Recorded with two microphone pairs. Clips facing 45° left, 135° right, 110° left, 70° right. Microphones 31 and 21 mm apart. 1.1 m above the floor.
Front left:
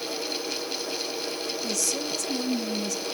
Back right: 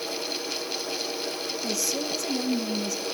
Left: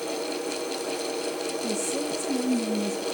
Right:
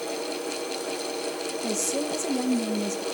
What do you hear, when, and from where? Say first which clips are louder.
1.6 s a woman speaking: back right 2 dB, right 3 dB; 60° right, 1.4 m